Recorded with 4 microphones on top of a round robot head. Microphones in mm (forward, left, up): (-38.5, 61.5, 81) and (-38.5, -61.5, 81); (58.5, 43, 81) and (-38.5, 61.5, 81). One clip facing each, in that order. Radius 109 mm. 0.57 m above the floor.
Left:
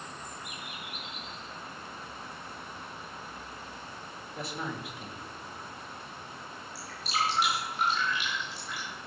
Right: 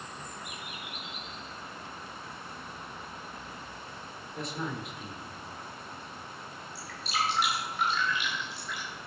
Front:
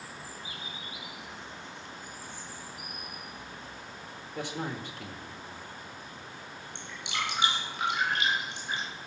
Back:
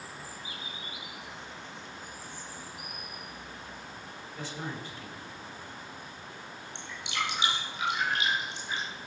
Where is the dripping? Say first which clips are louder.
Left 1 dB, back 1 dB; 15° left, 6.5 m.